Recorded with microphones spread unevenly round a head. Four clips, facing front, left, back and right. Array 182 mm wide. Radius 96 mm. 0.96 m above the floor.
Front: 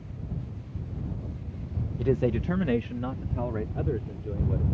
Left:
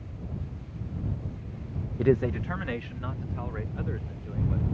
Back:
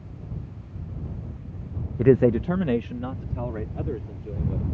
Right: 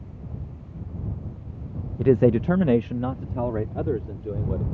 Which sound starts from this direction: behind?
A man speaking, at 2.0 s.